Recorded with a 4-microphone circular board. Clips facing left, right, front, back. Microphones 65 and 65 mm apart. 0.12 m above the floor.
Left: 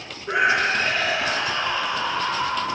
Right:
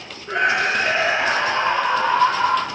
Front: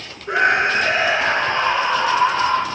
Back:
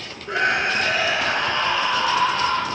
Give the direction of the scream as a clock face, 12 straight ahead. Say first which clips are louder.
Right 1 dB, front 4 dB; 11 o'clock.